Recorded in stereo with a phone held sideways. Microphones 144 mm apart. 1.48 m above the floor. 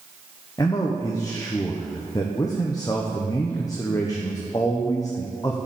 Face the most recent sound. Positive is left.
turn(degrees=25)  # may be behind; listen again after turning